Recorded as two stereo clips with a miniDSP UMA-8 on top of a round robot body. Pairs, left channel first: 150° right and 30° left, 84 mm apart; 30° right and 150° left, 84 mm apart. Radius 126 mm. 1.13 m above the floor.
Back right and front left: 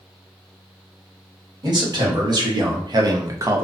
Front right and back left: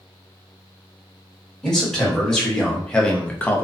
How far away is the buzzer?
I don't hear a buzzer.